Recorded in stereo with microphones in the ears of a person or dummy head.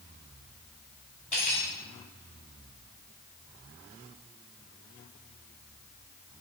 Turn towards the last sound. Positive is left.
turn(degrees=25)  # may be behind; listen again after turning